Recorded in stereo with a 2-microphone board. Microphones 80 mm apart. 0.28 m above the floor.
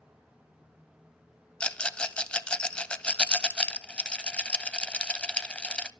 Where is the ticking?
I don't hear ticking.